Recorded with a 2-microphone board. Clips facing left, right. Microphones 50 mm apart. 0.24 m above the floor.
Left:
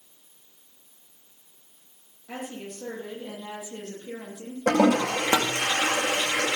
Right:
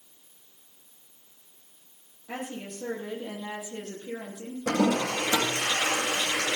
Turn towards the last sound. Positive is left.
turn(degrees=60)  # may be behind; listen again after turning